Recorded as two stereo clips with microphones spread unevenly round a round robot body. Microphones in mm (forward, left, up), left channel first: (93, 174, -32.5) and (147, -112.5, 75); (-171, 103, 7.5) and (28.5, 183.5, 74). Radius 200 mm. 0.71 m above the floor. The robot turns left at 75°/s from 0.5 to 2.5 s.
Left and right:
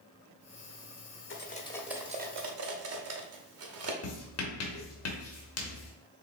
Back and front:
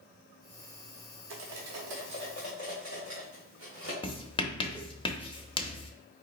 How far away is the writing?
About 1.0 m.